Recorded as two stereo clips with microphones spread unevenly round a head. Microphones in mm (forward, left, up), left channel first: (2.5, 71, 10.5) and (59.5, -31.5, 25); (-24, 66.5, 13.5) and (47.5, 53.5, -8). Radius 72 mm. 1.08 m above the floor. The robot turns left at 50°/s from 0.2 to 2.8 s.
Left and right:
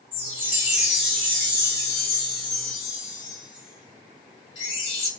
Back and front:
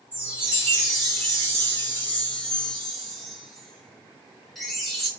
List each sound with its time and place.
0.1 s a chime: 100° right, 0.9 m; by 5.1 s 130° left, 0.9 m